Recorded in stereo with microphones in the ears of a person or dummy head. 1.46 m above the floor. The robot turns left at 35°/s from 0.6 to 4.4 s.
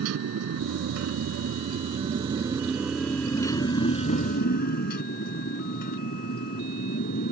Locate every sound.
0.0 s a motorcycle: 95° right; by 7.3 s 130° left